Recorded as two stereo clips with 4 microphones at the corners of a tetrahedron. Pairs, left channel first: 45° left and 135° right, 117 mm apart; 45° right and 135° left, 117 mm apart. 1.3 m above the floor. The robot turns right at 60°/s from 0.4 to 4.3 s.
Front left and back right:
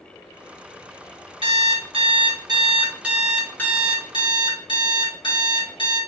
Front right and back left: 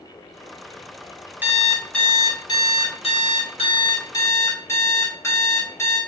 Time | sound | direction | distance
1.4 | an alarm clock | 155° right | 1.0 m